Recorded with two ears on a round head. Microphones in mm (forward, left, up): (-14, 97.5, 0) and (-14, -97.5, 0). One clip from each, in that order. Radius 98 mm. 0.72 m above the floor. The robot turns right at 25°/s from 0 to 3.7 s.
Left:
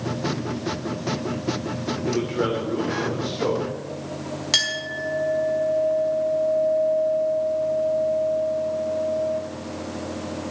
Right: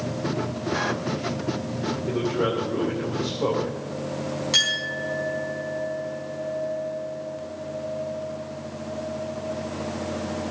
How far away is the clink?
About 4.5 m.